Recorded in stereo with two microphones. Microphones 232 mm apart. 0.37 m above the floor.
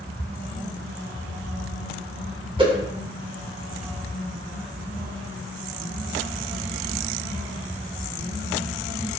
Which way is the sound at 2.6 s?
20° right (ahead or behind).